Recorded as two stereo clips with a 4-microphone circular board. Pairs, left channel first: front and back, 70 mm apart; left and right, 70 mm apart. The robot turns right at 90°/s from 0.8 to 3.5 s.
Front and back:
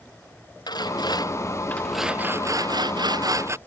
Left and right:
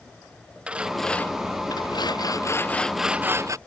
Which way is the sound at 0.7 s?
15° right.